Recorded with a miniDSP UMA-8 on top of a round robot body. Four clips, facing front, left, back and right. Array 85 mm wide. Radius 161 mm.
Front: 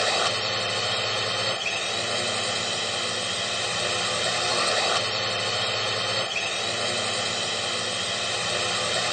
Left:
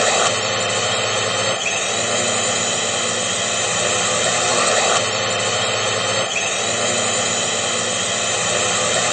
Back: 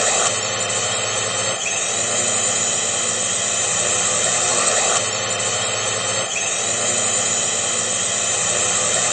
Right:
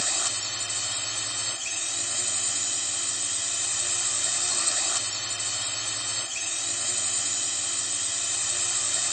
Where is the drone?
105° left.